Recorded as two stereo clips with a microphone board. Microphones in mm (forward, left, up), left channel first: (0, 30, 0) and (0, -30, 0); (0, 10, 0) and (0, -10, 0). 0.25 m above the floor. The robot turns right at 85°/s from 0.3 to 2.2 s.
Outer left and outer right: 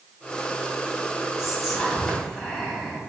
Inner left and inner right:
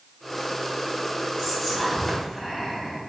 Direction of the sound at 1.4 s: 10° right (ahead or behind).